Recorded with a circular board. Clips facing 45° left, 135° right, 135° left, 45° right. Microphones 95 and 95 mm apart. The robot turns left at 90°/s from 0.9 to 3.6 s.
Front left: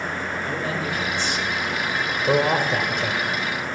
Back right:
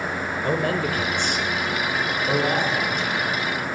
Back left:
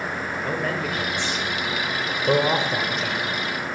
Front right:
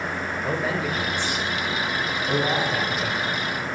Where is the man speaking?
130° right, 2.5 m; by 3.2 s 20° left, 2.5 m.